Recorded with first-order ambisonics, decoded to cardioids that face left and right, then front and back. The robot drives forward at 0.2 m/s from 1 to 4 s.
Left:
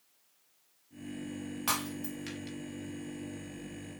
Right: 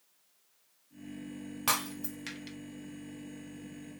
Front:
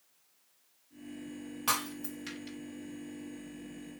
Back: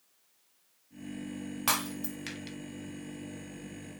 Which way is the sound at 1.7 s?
155° right.